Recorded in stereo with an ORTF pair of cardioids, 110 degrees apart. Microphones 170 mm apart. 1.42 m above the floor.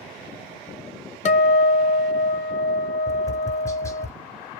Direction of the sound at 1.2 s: 45° left.